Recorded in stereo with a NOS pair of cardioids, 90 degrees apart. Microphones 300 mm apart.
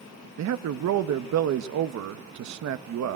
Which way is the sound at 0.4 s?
60° right.